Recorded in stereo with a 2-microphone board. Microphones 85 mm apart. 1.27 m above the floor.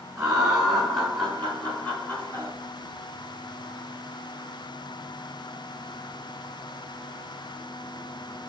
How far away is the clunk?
I don't hear a clunk.